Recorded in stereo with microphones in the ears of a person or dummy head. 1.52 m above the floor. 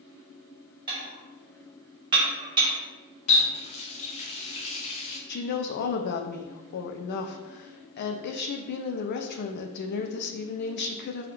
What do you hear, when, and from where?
0.9 s dishes clattering: 30° right (ahead or behind), 0.8 m
3.3 s a running tap: 30° left (ahead or behind), 0.7 m
5.3 s a woman speaking: 55° left (ahead or behind), 0.5 m